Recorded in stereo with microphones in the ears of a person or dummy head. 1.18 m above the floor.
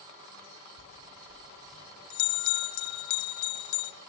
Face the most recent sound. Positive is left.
turn(degrees=60)  # may be behind; listen again after turning